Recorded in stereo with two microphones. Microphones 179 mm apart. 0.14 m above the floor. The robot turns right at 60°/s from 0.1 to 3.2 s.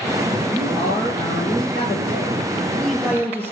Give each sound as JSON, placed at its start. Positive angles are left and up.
{"t": 0.5, "sound": "a man speaking", "azimuth_deg": 35, "distance_m": 3.0}